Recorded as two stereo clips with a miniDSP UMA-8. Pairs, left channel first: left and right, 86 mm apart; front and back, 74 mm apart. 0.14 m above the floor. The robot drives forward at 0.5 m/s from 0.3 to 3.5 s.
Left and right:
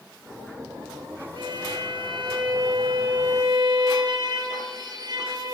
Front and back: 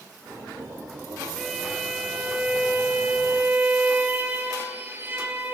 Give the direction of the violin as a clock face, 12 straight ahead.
3 o'clock.